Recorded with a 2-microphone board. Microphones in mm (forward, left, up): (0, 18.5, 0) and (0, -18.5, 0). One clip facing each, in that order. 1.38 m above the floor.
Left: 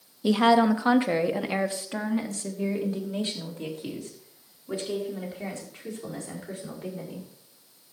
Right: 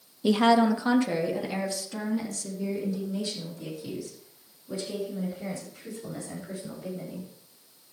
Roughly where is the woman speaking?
Centre.